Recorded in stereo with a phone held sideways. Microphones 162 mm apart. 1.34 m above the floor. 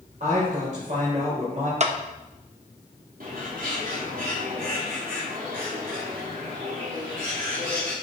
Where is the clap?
45° right (ahead or behind), 1.0 m.